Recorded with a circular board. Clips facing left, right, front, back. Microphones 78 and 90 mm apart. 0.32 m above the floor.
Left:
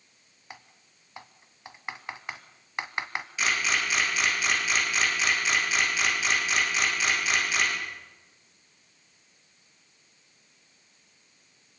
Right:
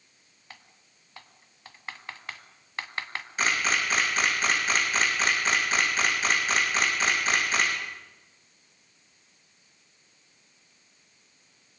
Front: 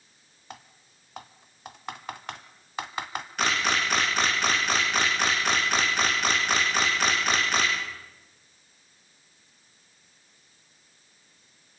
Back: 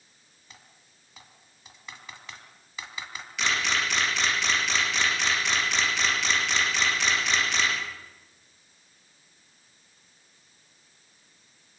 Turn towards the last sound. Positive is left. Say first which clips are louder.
# right 1 dB, front 2 dB
turn(degrees=-45)